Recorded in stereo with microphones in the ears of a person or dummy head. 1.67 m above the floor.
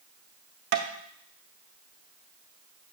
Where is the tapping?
55° right (ahead or behind), 0.7 m.